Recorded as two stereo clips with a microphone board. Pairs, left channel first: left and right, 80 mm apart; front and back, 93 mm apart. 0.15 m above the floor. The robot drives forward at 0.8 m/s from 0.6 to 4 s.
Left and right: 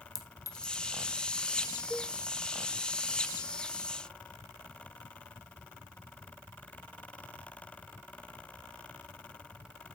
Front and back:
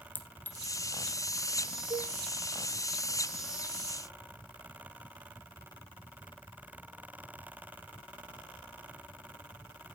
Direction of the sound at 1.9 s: 175° right.